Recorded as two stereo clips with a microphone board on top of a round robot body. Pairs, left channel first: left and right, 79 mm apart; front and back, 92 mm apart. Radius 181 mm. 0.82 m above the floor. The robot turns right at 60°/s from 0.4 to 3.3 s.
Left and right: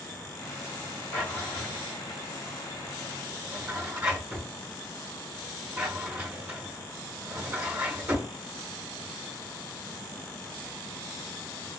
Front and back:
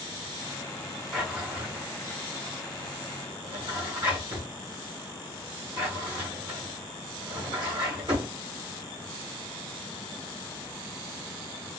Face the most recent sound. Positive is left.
turn(degrees=-140)